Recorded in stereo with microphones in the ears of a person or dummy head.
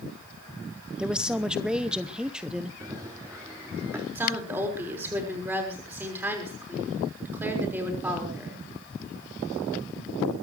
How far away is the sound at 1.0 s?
About 0.8 m.